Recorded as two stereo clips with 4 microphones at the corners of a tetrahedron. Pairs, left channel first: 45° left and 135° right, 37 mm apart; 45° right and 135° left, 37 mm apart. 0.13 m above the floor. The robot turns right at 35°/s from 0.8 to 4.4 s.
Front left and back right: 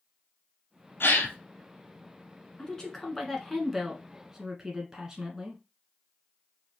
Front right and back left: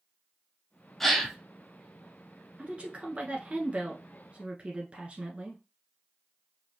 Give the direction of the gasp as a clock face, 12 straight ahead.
11 o'clock.